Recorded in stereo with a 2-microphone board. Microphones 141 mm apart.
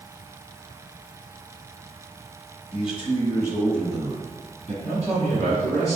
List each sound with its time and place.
2.7 s a man speaking: 45° left (ahead or behind), 1.4 m; by 4.7 s 35° right (ahead or behind), 1.2 m
4.8 s a man speaking: 20° left (ahead or behind), 1.6 m